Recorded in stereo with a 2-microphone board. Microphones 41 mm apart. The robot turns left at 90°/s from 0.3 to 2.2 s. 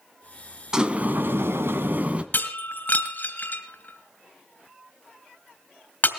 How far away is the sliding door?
About 1.3 m.